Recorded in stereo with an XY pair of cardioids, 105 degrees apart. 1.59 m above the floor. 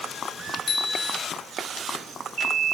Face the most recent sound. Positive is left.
turn(degrees=50)